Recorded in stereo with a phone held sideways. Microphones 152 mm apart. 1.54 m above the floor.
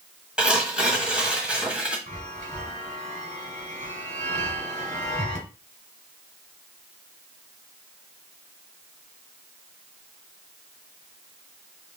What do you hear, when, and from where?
0.4 s tearing paper: 5° right (ahead or behind), 1.5 m
2.1 s a chime: 55° right (ahead or behind), 2 m